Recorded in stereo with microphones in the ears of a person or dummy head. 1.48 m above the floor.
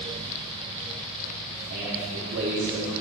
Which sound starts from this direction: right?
A man speaking, at 1.7 s.